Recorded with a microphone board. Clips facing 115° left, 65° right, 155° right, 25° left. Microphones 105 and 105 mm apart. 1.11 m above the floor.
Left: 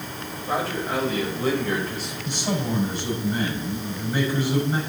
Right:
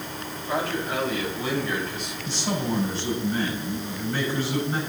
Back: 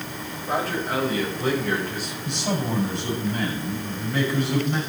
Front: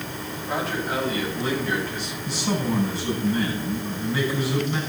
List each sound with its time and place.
0.5 s a man speaking: 165° left, 6.5 m; by 2.1 s 160° left, 6 m
2.2 s a man speaking: 175° right, 6.5 m